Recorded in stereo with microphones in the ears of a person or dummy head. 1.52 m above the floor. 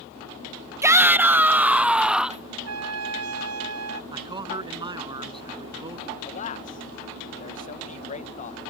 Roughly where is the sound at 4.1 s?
Right.